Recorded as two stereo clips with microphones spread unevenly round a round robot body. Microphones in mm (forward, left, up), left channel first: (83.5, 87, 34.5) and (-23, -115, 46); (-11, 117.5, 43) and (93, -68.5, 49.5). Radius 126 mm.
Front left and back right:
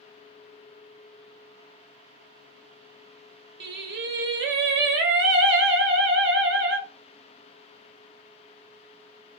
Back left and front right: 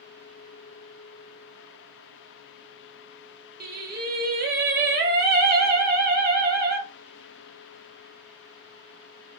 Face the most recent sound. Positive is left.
turn(degrees=-95)